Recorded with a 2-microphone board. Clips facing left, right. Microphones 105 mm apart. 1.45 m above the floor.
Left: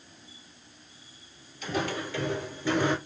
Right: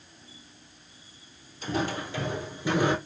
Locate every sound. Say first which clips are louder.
1.6 s footsteps: right 1 dB; 30° right (ahead or behind), 1.8 m; by 3.0 s 10° right (ahead or behind), 1.4 m